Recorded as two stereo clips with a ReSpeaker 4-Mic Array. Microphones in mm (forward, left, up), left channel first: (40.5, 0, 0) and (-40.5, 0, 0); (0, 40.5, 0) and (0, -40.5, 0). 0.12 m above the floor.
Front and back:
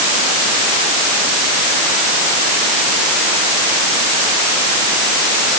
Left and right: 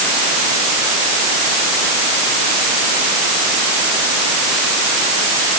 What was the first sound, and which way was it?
Only background noise.